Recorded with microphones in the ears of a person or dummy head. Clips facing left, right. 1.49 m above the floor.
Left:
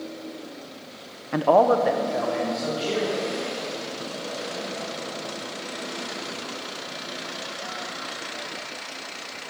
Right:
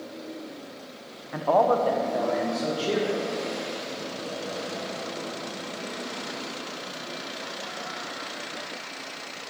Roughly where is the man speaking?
Left.